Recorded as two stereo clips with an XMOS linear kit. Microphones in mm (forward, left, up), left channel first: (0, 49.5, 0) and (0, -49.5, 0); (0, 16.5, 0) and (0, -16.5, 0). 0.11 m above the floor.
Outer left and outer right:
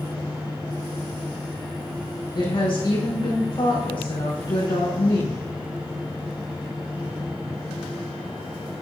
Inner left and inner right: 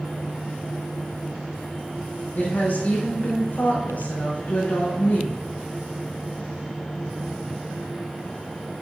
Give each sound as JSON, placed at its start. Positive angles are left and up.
{"t": 2.4, "sound": "a woman speaking", "side_deg": 55, "distance_m": 4.5}